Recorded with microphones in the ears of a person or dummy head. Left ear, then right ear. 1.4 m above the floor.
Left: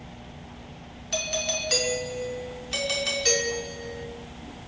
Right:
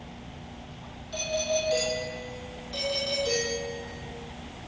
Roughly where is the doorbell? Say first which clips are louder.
Left 1 dB; left.